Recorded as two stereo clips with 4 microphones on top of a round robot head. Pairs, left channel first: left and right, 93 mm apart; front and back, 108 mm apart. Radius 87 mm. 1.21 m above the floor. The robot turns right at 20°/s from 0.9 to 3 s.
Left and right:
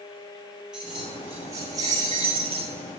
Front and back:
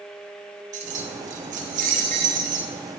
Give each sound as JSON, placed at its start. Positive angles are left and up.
{"t": 0.7, "sound": "keys jangling", "azimuth_deg": -175, "distance_m": 0.8}